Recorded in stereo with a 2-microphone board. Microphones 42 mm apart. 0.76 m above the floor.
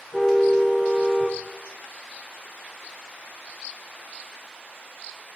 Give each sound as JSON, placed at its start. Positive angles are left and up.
{"t": 0.1, "sound": "a car horn", "side_deg": 5, "distance_m": 8.5}